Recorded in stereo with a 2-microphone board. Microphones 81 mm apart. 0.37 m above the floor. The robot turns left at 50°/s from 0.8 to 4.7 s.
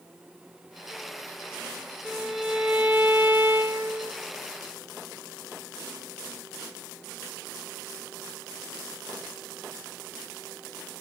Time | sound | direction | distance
2.0 | a violin | centre (ahead or behind) | 0.8 m